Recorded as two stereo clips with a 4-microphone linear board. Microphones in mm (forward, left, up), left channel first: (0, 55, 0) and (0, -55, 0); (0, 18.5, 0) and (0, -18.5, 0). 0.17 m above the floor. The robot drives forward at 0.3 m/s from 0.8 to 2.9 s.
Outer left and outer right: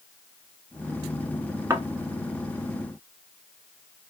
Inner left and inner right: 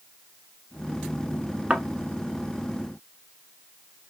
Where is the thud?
25° right (ahead or behind), 1.0 m.